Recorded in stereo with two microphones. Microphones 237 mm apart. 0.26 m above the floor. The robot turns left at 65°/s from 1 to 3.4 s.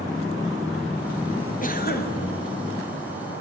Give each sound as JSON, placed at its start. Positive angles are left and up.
{"t": 1.6, "sound": "a cough", "azimuth_deg": 120, "distance_m": 1.7}